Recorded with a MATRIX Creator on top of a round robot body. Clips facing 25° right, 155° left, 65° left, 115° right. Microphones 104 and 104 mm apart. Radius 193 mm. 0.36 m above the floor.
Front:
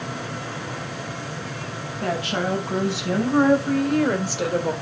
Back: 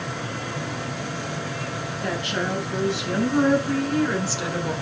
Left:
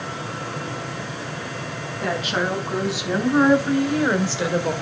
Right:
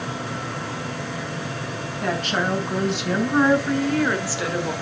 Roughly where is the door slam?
I don't hear a door slam.